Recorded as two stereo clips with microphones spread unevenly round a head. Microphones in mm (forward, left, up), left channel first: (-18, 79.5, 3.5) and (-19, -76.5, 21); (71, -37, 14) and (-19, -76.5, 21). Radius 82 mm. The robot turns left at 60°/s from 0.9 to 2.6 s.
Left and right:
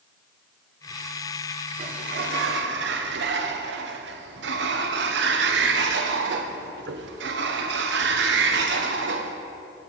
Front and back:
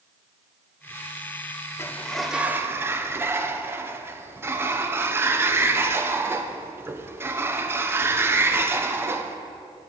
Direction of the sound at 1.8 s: 45° right.